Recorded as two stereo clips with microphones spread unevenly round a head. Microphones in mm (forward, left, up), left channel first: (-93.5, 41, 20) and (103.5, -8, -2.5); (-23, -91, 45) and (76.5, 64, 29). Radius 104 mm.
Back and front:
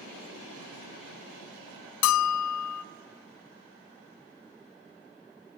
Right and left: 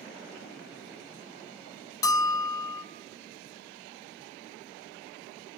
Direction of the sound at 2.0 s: 165° left.